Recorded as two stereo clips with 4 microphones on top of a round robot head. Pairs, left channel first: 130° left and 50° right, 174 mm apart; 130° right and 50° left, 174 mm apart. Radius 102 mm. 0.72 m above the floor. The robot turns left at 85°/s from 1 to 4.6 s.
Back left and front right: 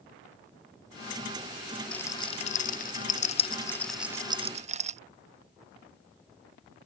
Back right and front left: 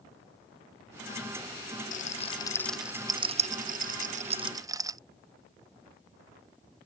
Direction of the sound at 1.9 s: 145° right.